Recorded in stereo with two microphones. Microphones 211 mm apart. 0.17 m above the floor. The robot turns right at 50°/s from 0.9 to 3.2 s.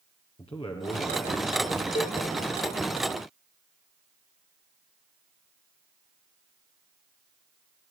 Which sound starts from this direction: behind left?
A man speaking, at 0.4 s.